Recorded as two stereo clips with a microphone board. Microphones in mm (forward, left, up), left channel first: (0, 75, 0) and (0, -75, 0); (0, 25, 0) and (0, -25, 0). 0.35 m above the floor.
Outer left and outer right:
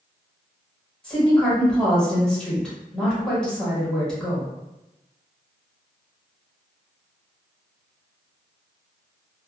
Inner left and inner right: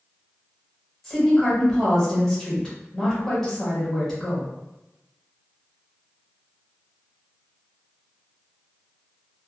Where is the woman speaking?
5° left (ahead or behind), 1.3 m.